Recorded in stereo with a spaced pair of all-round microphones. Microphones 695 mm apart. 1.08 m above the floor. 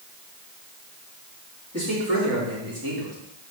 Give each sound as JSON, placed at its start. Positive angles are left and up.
{"t": 1.7, "sound": "a man speaking", "side_deg": -20, "distance_m": 3.5}